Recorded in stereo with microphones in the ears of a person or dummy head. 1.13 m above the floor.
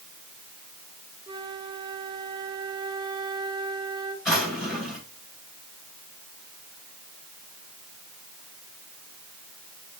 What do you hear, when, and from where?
1.3 s a flute: 25° right (ahead or behind), 0.9 m
4.2 s a drawer: centre (ahead or behind), 6.5 m